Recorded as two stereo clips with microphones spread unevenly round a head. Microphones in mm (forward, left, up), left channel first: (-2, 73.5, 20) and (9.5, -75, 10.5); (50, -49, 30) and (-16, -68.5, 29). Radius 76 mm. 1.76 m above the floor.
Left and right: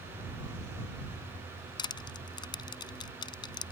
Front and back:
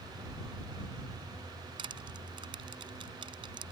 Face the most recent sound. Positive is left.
turn(degrees=155)